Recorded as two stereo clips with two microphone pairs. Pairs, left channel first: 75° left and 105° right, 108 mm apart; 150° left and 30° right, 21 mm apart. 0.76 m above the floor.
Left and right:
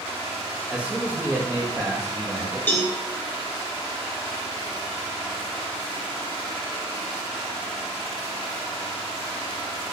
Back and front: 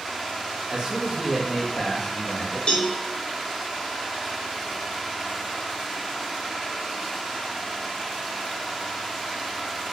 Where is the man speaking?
25° right, 0.8 m; by 2.6 s 175° right, 1.0 m.